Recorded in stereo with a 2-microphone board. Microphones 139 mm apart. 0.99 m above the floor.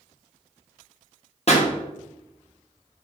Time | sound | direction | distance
1.5 | a pop | 50° left (ahead or behind) | 0.7 m